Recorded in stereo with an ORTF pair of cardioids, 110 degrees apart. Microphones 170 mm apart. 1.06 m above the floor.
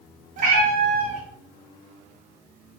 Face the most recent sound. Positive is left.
turn(degrees=-55)